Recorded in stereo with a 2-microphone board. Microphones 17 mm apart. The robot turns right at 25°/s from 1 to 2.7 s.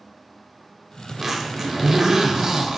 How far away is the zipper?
About 0.7 m.